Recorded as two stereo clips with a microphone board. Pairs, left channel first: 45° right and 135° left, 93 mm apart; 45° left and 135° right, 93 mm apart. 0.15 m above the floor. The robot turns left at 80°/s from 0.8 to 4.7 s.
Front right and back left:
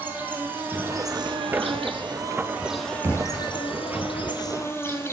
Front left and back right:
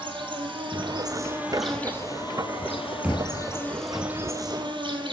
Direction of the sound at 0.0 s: 155° right.